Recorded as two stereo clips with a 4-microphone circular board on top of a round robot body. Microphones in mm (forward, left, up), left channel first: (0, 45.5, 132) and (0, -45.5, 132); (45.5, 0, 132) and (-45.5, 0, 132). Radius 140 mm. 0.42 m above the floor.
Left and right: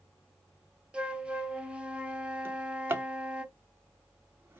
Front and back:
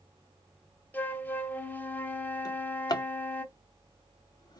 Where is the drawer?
30° right, 0.8 m.